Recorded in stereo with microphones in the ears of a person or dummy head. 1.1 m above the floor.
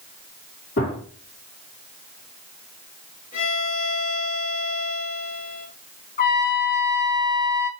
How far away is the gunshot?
About 3 m.